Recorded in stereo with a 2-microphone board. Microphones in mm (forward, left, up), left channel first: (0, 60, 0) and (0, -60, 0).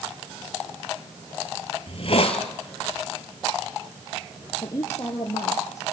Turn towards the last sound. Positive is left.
turn(degrees=25)  # may be behind; listen again after turning